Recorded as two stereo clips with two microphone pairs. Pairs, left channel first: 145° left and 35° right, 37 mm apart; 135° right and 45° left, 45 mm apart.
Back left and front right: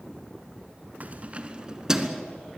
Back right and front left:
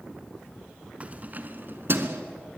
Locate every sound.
1.0 s keys jangling: 5° right, 1.6 m; by 2.2 s 50° left, 1.7 m